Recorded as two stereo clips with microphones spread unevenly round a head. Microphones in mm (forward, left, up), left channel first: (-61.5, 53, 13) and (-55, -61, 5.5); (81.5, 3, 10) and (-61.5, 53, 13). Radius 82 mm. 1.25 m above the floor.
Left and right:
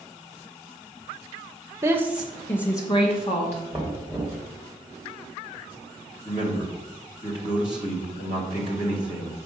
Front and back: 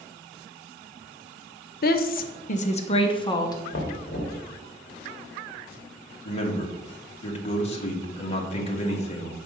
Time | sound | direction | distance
1.8 | a woman speaking | 20° right | 0.8 m
3.7 | knocking | 10° left | 1.7 m
6.2 | a man speaking | 30° left | 1.6 m